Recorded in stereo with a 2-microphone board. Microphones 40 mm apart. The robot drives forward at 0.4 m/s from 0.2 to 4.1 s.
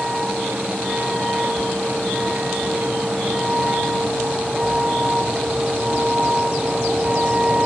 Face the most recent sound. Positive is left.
turn(degrees=-20)  # may be behind; listen again after turning